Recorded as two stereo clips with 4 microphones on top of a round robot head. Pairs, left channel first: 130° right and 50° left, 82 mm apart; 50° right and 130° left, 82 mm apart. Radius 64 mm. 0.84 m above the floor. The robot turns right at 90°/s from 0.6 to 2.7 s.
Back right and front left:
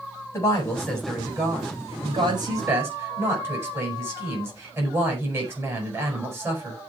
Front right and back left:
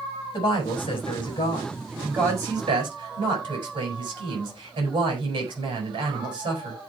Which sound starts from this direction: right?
A woman speaking, at 0.3 s.